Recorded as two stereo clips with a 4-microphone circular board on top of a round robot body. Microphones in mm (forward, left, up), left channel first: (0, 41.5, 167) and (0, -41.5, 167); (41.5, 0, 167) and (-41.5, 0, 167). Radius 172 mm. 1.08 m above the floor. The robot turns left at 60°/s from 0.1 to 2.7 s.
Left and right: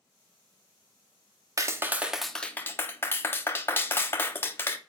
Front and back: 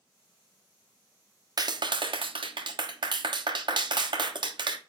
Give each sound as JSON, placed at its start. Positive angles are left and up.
{"t": 1.6, "sound": "a clap", "azimuth_deg": -140, "distance_m": 0.9}